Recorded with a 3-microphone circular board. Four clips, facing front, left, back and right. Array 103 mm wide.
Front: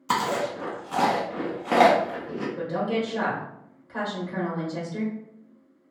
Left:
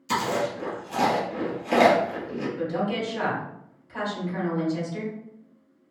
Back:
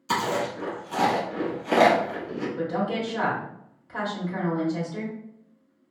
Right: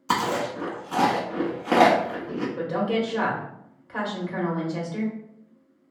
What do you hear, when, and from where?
0.1 s chewing: 60° right, 0.8 m
2.6 s a woman speaking: 90° right, 1.1 m